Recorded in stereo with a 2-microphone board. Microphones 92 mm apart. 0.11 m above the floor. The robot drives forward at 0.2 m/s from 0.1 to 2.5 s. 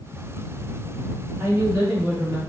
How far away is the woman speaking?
About 1.9 m.